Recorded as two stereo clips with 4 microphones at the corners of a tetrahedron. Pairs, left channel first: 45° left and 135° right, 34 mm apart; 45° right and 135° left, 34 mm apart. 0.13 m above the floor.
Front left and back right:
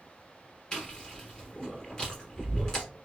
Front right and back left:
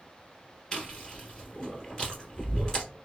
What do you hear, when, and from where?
0.7 s chewing: 5° left, 1.3 m